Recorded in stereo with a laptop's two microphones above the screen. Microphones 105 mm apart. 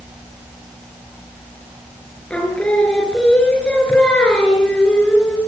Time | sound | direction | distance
2.3 | singing | 10° left (ahead or behind) | 4.5 m